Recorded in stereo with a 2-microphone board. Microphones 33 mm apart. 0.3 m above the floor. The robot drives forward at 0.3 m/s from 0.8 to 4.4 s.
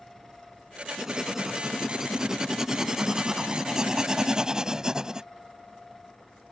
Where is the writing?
15° right (ahead or behind); by 5.3 s 20° right (ahead or behind).